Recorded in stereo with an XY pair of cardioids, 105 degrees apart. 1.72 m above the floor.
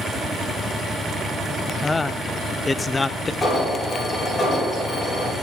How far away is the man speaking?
About 0.7 m.